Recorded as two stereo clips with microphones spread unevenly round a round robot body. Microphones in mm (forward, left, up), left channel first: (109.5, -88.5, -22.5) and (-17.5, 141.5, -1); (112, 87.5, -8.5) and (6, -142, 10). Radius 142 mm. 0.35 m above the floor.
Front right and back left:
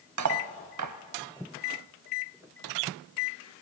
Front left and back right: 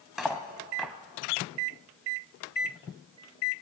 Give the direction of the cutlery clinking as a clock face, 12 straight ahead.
7 o'clock.